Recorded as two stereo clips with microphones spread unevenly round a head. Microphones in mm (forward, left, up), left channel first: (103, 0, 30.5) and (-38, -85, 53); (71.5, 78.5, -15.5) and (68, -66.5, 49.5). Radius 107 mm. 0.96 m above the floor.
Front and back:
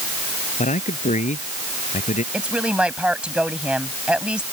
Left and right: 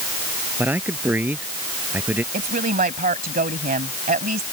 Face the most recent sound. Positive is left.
turn(degrees=-65)